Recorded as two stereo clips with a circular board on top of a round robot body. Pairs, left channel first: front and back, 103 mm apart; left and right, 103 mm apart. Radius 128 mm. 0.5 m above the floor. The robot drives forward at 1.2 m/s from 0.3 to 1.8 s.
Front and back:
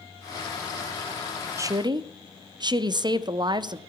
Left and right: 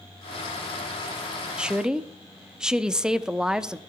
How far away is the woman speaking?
About 0.7 m.